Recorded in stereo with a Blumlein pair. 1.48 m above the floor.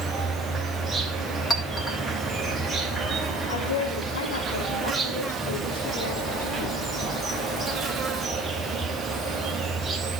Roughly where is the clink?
Ahead.